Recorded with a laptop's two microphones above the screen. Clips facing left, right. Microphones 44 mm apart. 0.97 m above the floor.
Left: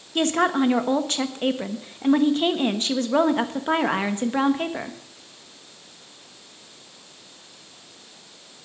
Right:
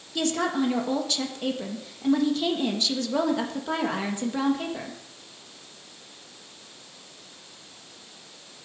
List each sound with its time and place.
0.1 s a woman speaking: 40° left (ahead or behind), 1.3 m